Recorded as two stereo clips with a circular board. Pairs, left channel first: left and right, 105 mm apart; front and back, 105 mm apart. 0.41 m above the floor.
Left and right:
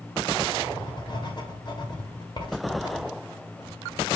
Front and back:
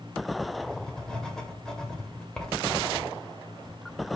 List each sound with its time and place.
0.6 s writing: 80° left, 1.9 m